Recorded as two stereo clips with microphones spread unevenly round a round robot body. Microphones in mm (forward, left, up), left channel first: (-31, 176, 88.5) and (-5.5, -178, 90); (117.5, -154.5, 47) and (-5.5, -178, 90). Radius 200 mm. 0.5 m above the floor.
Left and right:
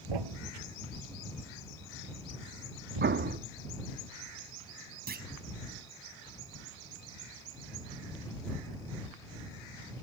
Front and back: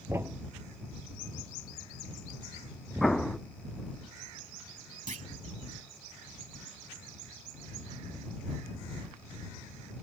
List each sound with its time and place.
0.1 s a thud: 100° right
3.0 s an explosion: 45° right
5.1 s a clunk: 150° right